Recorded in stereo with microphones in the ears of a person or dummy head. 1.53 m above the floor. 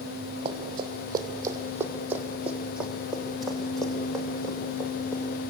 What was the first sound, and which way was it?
Running footsteps, 35° right (ahead or behind).